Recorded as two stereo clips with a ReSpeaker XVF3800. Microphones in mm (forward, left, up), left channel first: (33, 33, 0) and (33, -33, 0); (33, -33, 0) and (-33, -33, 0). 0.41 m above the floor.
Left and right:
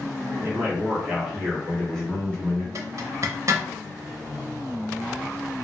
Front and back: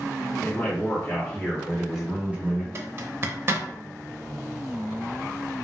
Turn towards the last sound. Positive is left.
turn(degrees=-125)